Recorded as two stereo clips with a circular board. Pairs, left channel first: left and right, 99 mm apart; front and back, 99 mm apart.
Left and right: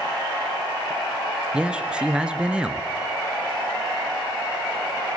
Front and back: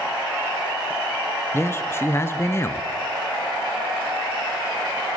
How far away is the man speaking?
About 1.1 m.